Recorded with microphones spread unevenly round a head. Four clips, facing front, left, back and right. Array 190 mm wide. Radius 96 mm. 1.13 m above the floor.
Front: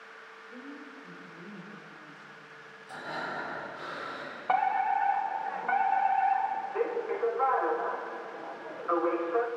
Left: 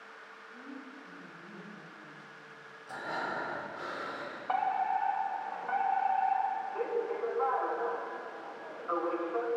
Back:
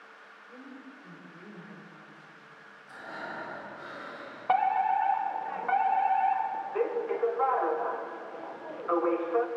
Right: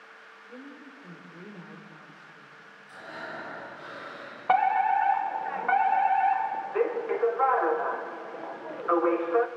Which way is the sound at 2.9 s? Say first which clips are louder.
Left 4 dB, front 3 dB; 60° left.